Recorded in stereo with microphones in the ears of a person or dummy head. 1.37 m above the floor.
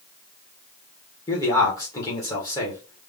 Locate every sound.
1.3 s a man speaking: 20° left (ahead or behind), 1.1 m